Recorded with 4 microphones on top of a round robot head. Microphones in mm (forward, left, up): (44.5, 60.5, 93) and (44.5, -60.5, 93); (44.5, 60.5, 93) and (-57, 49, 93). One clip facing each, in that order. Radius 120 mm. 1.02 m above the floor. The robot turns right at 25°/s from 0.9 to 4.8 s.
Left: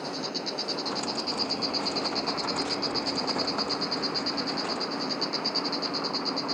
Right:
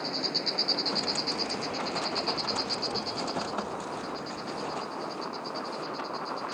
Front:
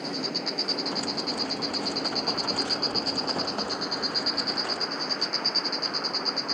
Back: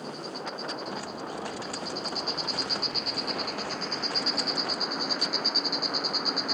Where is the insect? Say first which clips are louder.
Left 1 dB, front 4 dB; 5° left; by 6.5 s 105° left.